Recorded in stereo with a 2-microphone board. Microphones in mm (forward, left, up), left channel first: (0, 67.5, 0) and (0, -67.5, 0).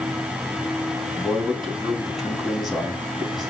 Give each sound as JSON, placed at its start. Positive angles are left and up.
{"t": 1.1, "sound": "a man speaking", "side_deg": 0, "distance_m": 4.0}